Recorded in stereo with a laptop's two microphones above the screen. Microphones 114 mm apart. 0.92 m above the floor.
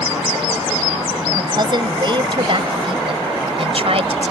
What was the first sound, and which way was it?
A woman speaking, 40° right (ahead or behind).